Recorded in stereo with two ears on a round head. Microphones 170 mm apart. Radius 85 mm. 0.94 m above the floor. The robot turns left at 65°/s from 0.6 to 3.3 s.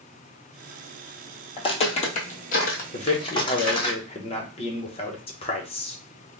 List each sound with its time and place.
1.6 s footsteps: 25° left (ahead or behind), 1.0 m; by 3.9 s 30° left (ahead or behind), 2 m
2.9 s a man speaking: 35° left (ahead or behind), 0.9 m; by 6.0 s 30° left (ahead or behind), 0.9 m